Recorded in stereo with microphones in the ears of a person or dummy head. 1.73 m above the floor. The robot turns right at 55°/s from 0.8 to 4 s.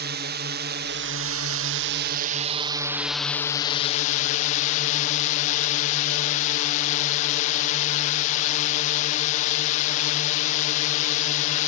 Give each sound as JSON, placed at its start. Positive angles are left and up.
{"t": 0.0, "sound": "a drone", "azimuth_deg": -130}